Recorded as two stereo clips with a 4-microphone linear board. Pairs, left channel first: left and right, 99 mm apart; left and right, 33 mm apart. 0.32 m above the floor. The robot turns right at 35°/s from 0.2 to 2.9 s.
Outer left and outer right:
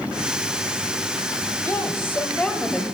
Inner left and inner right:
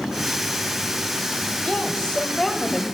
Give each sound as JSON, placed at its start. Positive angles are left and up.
{"t": 1.6, "sound": "a woman speaking", "azimuth_deg": 135, "distance_m": 1.2}